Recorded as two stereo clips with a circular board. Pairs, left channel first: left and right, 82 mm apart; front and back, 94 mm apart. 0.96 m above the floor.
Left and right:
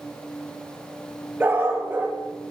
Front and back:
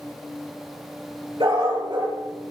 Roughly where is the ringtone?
I don't hear a ringtone.